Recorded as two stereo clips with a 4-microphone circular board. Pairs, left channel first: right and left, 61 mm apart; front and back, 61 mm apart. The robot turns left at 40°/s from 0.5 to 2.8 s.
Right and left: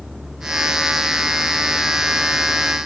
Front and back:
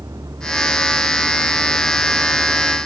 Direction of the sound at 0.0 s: 175° left.